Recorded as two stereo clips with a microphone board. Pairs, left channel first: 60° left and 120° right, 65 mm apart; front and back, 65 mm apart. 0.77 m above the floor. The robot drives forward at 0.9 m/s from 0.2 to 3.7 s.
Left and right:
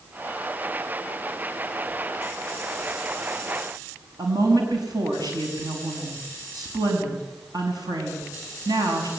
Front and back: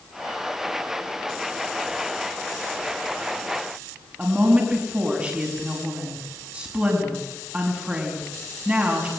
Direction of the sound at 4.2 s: 110° right.